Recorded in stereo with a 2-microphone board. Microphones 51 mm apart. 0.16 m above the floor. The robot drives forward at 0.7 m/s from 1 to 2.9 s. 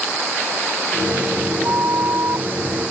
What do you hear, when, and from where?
1.6 s a flute: 55° right (ahead or behind); by 2.5 s 60° right (ahead or behind)